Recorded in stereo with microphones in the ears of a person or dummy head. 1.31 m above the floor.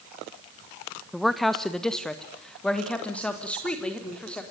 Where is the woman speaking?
5° left (ahead or behind), 1.1 m; by 4.4 s 10° left (ahead or behind), 3.5 m.